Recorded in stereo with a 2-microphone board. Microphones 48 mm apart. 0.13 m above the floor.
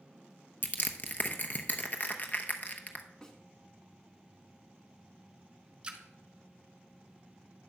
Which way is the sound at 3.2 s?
15° left (ahead or behind).